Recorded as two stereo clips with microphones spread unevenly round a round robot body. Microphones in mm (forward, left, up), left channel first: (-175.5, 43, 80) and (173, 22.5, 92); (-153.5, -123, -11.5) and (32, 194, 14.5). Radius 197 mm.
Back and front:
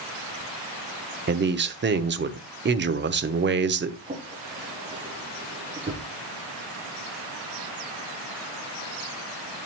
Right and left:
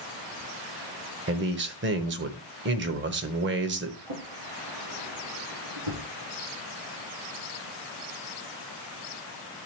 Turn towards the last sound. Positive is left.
turn(degrees=75)